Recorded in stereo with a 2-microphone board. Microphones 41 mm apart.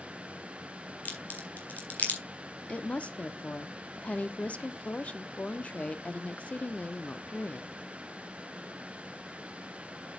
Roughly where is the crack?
Left.